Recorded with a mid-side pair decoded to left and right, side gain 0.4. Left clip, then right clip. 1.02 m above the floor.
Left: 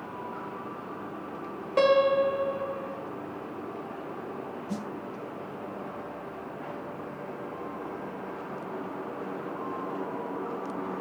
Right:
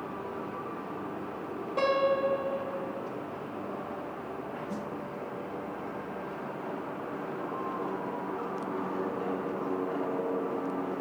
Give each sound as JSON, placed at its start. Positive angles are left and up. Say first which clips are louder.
{"t": 1.8, "sound": "a piano", "louder": "left 5 dB", "azimuth_deg": 65, "distance_m": 1.8}
{"t": 4.7, "sound": "a snare drum", "louder": "even", "azimuth_deg": 60, "distance_m": 0.9}